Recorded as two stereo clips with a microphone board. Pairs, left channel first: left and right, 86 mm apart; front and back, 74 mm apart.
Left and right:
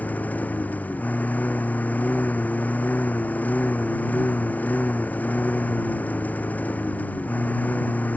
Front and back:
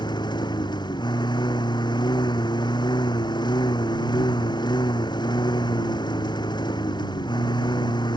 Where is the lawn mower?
20° left.